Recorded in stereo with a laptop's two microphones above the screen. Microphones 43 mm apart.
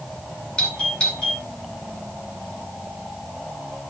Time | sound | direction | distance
0.6 | a doorbell | 20° left (ahead or behind) | 3 m